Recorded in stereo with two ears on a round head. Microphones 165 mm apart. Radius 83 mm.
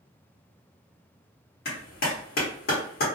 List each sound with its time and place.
1.6 s a clap: 60° left (ahead or behind), 1.2 m